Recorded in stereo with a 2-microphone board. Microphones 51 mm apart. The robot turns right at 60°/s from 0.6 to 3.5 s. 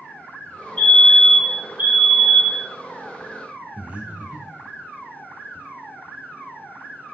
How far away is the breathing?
About 2.0 m.